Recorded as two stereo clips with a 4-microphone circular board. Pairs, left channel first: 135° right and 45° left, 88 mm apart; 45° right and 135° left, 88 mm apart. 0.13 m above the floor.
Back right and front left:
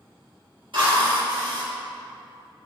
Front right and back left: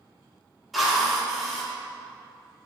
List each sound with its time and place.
0.7 s a drill: 45° left, 3 m